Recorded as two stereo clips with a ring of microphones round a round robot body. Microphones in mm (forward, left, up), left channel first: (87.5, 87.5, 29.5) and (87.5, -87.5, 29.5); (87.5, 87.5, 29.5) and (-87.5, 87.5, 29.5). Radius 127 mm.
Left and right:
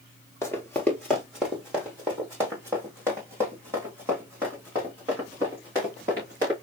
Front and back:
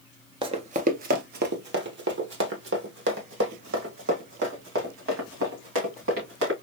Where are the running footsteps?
155° left, 0.6 m; by 6.5 s 170° right, 3.5 m.